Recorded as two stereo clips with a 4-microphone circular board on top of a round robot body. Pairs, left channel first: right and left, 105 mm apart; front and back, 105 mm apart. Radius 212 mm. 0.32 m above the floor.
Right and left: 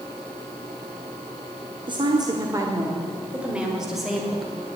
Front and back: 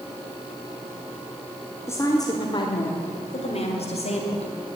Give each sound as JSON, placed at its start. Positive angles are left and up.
{"t": 1.9, "sound": "a woman speaking", "azimuth_deg": 60, "distance_m": 1.6}